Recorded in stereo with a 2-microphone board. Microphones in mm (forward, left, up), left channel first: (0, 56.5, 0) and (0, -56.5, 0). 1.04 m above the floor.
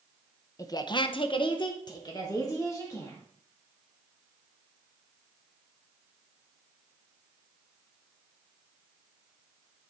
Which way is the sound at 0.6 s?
25° left (ahead or behind).